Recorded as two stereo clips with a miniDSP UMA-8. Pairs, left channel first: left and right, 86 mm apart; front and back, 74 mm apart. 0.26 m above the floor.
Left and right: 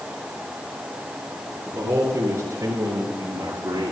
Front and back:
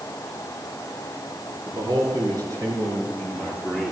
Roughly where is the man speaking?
Behind right.